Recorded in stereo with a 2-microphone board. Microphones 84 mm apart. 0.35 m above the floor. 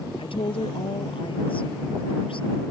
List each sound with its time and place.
0.2 s a woman speaking: 80° left